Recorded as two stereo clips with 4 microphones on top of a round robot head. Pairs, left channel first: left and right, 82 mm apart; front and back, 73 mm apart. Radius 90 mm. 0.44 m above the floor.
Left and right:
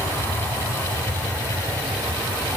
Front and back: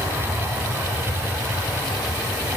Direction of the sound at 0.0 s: 40° right.